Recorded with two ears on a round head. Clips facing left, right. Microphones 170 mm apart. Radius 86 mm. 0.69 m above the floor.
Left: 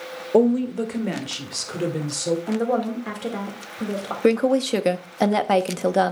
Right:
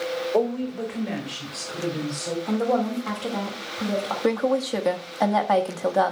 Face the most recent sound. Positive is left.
turn(degrees=30)  # may be behind; listen again after turning